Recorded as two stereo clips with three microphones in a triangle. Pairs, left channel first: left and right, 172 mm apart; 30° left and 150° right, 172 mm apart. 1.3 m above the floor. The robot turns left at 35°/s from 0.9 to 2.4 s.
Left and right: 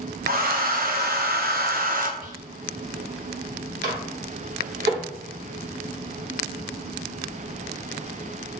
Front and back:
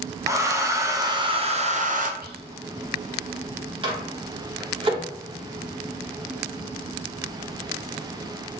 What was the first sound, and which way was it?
A hair dryer, 80° right.